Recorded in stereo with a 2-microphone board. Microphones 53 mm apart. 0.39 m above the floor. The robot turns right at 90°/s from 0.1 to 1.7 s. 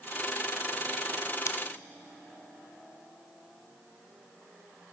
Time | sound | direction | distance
1.5 | scissors | 70° left (ahead or behind) | 0.6 m